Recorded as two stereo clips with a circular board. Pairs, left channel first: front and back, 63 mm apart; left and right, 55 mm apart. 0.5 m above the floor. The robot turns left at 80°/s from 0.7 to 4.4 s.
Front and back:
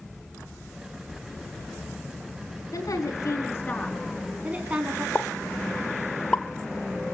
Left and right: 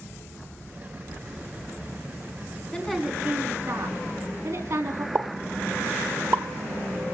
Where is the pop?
65° right, 1.1 m.